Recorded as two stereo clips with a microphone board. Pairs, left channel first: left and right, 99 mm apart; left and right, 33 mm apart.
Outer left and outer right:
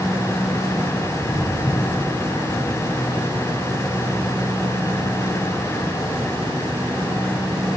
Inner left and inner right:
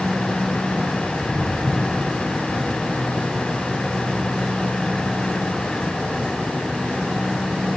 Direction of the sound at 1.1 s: 35° left (ahead or behind).